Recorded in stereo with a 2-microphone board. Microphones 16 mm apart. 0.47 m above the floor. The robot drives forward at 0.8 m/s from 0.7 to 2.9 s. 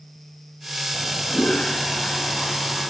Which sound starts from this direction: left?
A toilet flushing, at 0.9 s.